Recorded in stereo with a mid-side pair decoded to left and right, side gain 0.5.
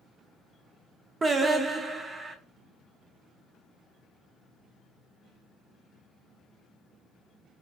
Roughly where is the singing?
Ahead right.